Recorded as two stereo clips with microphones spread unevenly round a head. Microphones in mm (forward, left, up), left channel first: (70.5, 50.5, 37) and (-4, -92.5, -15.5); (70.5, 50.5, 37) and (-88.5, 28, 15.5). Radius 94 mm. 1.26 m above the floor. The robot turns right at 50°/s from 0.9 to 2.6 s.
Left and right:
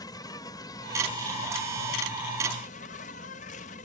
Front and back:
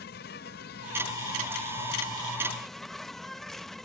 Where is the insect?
5° left; by 3.9 s 90° left.